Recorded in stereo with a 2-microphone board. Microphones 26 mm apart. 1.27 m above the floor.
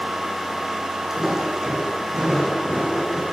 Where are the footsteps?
15° right (ahead or behind), 3 m; by 3.2 s 25° right (ahead or behind), 4 m.